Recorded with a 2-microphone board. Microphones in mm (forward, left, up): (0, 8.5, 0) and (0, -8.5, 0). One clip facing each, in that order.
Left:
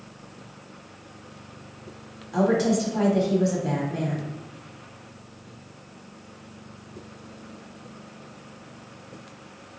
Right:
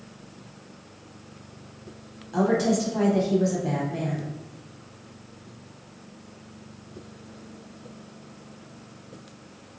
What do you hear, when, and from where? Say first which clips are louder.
2.3 s a woman speaking: left 1 dB; 5° left (ahead or behind), 1.0 m